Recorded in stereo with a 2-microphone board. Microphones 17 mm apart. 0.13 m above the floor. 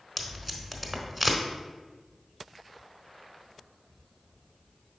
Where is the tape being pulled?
Centre (ahead or behind), 0.9 m.